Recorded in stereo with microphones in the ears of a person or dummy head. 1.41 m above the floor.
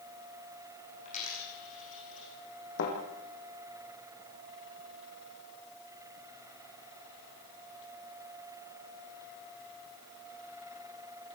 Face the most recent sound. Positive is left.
turn(degrees=60)  # may be behind; listen again after turning